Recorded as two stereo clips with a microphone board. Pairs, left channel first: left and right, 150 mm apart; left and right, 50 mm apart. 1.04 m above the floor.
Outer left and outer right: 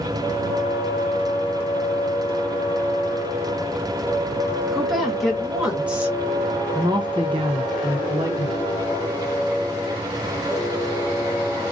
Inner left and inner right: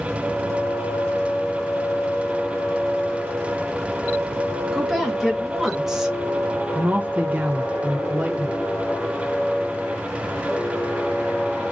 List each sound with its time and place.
4.7 s a woman speaking: centre (ahead or behind), 1.5 m; by 8.6 s 30° right (ahead or behind), 1.0 m